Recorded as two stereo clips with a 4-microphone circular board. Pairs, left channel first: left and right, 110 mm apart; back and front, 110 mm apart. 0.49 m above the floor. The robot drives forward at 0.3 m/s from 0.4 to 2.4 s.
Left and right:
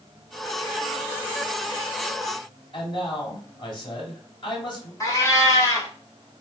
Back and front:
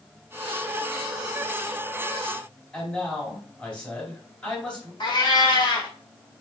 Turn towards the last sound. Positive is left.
turn(degrees=145)